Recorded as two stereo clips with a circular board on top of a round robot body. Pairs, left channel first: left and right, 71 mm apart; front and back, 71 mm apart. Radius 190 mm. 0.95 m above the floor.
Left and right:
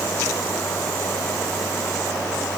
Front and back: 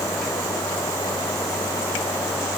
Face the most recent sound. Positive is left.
No sound to turn to.